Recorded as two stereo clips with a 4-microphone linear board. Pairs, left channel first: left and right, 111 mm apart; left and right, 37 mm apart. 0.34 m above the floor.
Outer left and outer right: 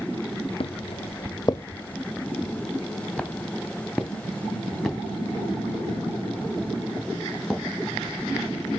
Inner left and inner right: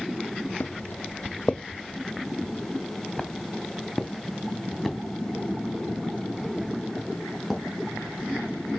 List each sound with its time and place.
0.6 s footsteps: 55° left (ahead or behind), 0.6 m; by 8.8 s 10° right (ahead or behind), 5.5 m